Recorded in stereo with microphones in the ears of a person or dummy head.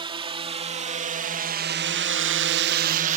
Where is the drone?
25° right (ahead or behind); by 3.2 s 40° right (ahead or behind).